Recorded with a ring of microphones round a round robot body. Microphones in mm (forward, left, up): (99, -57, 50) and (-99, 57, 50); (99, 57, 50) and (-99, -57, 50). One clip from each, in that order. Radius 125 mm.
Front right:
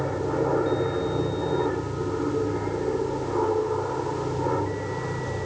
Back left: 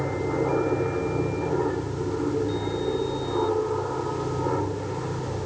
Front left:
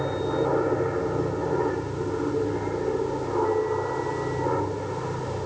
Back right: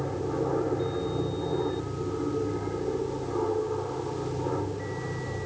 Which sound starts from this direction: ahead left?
An aircraft, at 0.0 s.